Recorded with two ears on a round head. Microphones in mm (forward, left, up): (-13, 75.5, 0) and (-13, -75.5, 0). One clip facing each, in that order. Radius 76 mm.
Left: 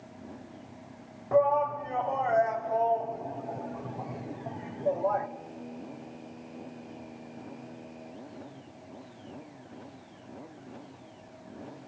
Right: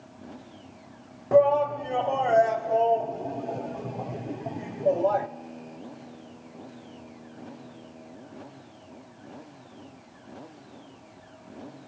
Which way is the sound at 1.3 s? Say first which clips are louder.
Right 5 dB; 35° right (ahead or behind).